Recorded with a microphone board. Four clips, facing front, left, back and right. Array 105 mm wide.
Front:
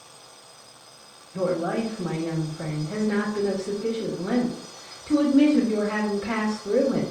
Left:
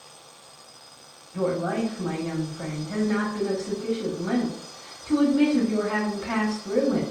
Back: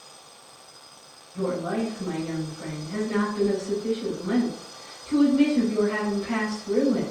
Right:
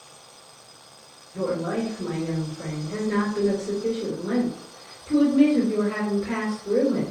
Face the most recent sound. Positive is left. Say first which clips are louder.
# left 1 dB, front 2 dB
turn(degrees=35)